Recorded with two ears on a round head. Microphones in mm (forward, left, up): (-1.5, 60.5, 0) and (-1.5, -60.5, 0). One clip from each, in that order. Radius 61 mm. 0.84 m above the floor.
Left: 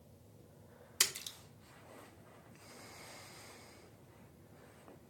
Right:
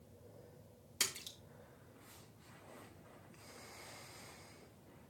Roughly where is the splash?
Left.